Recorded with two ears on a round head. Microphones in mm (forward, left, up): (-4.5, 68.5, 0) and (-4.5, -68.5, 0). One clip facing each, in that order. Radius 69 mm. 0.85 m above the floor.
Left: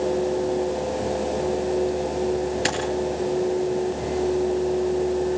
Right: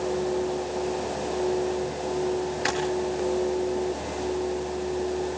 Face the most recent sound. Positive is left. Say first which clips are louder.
# left 1 dB
turn(degrees=35)  # may be behind; listen again after turning